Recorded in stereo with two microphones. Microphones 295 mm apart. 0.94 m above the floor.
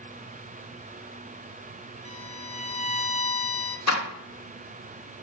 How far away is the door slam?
About 1.3 m.